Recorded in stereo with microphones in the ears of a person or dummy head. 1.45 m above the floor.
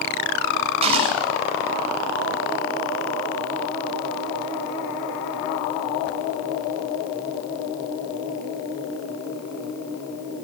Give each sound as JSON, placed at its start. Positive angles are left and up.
{"t": 0.8, "sound": "a gunshot", "side_deg": -30, "distance_m": 9.0}